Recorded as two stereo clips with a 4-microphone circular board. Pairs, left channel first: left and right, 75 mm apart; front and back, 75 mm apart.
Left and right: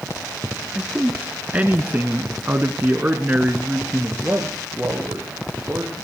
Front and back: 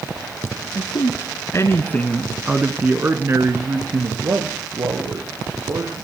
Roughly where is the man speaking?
Ahead.